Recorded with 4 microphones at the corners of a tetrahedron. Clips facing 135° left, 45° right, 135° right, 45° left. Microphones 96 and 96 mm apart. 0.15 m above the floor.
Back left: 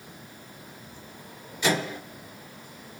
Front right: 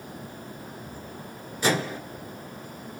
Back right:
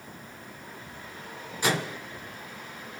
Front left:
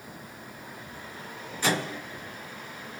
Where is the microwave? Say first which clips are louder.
Front right 1 dB, even; 65° right, 1.8 m.